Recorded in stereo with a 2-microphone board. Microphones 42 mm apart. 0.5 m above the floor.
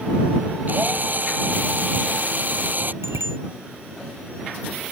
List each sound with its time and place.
0.7 s a drill: 45° right (ahead or behind)
3.0 s a bicycle bell: 85° right